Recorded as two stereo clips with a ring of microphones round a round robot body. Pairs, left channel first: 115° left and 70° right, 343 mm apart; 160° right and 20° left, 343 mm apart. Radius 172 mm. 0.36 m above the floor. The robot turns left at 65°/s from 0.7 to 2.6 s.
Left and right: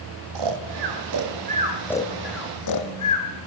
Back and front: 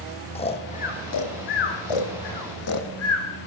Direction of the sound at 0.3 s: 85° right.